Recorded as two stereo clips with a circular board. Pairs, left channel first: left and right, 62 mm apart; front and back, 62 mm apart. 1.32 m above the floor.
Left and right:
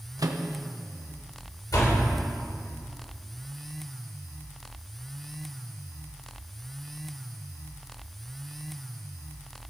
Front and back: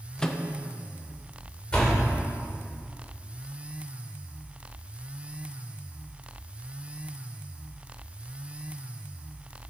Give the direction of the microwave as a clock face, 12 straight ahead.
3 o'clock.